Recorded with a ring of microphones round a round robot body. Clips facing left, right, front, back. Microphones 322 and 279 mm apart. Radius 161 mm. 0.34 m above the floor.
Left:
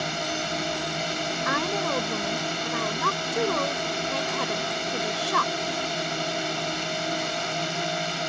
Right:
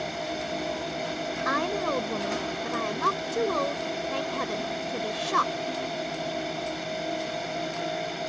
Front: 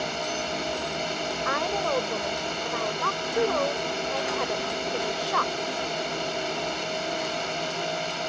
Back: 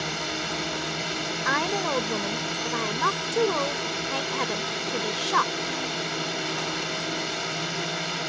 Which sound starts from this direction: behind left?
A drone, at 0.0 s.